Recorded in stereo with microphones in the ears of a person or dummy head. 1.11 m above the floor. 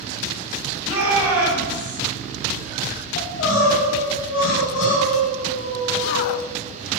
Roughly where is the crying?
Left.